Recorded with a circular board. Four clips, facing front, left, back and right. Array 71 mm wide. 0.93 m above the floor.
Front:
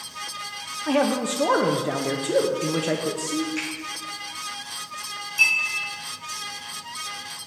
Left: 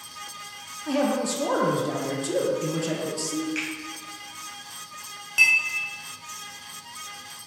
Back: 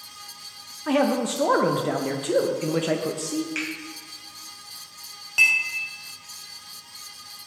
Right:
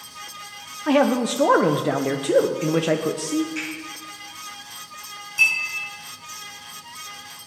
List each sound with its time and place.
0.9 s a man speaking: 95° right, 0.6 m
3.5 s a finger snap: 160° left, 5 m
5.4 s a clink: 145° left, 3.5 m